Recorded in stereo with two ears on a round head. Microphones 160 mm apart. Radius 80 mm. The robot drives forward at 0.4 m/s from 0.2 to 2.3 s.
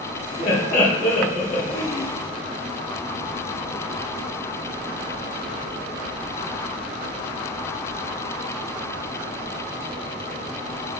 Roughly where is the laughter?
Left.